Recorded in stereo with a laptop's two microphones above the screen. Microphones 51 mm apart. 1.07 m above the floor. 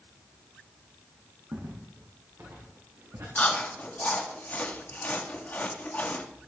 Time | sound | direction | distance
1.5 | footsteps | 75° right (ahead or behind) | 5 m
3.4 | chewing | 30° left (ahead or behind) | 1.3 m